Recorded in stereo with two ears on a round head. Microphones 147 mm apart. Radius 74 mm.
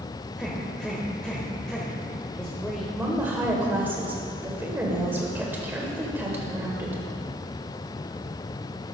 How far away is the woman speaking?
About 2 m.